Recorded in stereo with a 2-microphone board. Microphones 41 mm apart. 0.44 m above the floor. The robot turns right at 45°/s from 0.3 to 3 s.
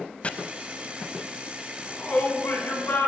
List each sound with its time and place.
0.2 s chopping: 35° left (ahead or behind), 0.5 m
1.8 s a shout: 55° left, 4 m; by 3.1 s 105° left, 4 m